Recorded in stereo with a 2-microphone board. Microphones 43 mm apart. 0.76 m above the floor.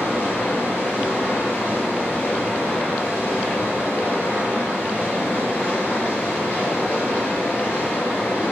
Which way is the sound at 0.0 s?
45° left (ahead or behind).